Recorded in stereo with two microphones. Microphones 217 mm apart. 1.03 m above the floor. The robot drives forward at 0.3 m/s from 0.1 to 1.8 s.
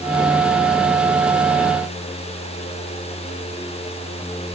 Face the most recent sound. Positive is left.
No sound to turn to.